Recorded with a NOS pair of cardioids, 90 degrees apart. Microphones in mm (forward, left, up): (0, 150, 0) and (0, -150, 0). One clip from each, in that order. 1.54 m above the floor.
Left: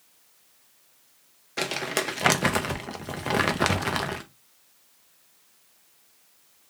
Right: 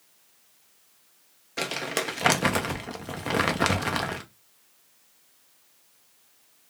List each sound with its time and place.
1.6 s crumpling: 5° left, 0.5 m